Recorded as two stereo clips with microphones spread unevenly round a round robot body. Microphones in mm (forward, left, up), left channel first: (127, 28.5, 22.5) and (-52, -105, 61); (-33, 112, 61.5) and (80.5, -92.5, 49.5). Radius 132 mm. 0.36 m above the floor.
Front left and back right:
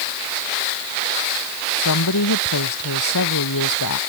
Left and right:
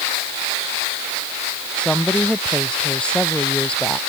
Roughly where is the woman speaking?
Ahead left.